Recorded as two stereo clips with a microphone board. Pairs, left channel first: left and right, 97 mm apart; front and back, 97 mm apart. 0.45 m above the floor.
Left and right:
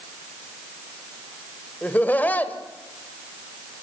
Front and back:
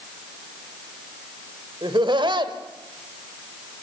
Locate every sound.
1.8 s laughter: 160° left, 1.9 m